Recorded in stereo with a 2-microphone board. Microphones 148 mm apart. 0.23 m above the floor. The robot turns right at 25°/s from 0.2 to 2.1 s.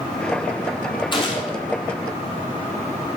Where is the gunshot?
35° left (ahead or behind), 2.5 m; by 1.6 s 45° left (ahead or behind), 2.5 m.